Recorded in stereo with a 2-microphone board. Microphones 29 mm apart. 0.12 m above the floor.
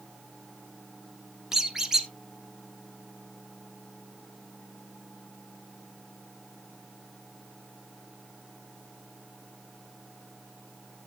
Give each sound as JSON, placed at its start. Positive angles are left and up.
{"t": 1.5, "sound": "a squeak", "side_deg": -20, "distance_m": 1.7}